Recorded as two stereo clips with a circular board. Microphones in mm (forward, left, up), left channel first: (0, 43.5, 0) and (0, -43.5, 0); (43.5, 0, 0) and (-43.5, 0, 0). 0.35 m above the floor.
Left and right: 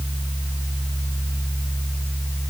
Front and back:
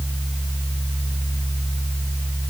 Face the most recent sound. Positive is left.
No sound to turn to.